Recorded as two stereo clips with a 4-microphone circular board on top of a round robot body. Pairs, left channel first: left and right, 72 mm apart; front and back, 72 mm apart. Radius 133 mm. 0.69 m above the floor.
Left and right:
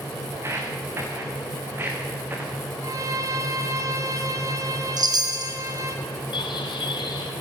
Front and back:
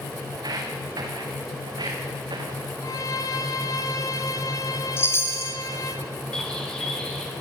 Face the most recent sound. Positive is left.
turn(degrees=80)